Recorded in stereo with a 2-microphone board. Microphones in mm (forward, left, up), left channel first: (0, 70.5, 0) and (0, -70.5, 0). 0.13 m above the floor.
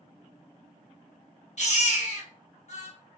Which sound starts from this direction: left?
A baby crying, at 1.6 s.